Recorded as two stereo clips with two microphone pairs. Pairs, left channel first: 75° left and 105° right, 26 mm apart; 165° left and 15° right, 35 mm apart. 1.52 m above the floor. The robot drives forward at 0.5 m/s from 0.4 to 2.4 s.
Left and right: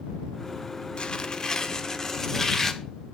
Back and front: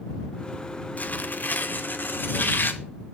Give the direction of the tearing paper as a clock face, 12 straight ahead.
8 o'clock.